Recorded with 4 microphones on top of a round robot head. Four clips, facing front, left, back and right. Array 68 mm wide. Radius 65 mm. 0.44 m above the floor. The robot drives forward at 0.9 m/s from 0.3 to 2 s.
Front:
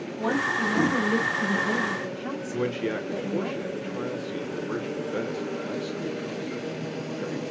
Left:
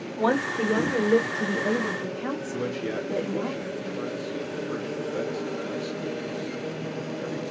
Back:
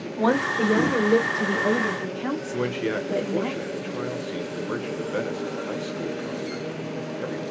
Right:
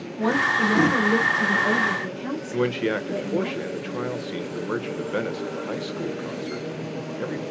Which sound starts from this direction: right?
A man speaking, at 2.5 s.